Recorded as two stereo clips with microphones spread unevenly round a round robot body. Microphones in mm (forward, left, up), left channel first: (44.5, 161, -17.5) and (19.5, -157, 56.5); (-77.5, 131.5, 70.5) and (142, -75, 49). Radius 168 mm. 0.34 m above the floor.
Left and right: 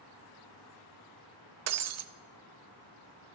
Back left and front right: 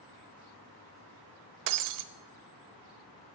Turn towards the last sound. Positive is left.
turn(degrees=-45)